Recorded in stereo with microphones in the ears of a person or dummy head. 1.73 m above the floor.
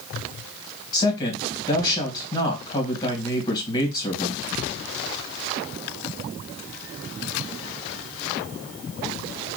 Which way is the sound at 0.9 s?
20° left (ahead or behind).